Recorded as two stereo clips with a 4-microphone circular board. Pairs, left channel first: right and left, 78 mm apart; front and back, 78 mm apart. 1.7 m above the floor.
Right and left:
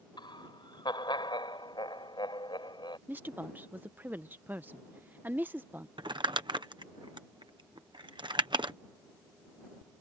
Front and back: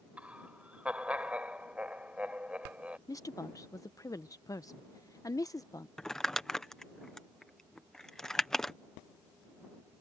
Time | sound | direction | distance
0.2 | laughter | 105° right | ?
3.1 | a woman speaking | 30° left | ?
6.0 | crumpling | 85° left | ?